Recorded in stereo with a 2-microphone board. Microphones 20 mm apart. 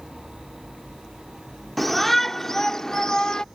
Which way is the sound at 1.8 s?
5° left (ahead or behind).